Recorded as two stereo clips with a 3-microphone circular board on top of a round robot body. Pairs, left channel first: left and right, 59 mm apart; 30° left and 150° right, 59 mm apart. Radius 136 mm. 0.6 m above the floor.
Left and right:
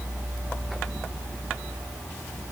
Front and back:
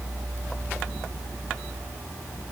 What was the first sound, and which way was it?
Only background noise.